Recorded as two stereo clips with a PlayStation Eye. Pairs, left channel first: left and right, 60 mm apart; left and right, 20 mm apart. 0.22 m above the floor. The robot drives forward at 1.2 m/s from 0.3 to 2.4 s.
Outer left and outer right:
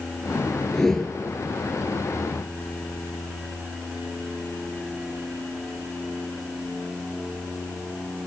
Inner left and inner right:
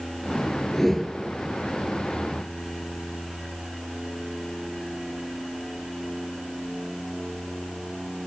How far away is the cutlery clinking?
No cutlery clinking in this recording.